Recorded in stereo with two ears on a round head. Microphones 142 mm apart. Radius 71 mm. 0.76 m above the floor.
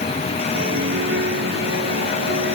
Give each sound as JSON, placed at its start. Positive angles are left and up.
{"t": 0.5, "sound": "a piano", "side_deg": -80}